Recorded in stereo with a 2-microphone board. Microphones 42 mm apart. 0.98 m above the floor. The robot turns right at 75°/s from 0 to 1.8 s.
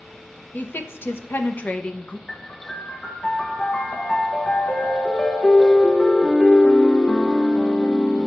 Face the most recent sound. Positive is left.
turn(degrees=20)  # may be behind; listen again after turning